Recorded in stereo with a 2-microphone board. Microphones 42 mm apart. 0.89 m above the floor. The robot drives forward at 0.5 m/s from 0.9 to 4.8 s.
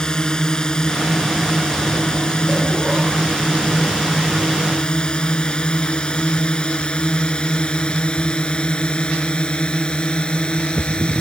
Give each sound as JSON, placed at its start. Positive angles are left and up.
{"t": 0.0, "sound": "a drone", "side_deg": 20}